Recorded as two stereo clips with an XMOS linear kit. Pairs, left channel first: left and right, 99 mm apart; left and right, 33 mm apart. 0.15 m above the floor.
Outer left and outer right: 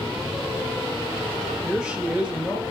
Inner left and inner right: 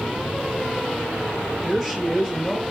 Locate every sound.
1.6 s a woman speaking: 10° right (ahead or behind), 3 m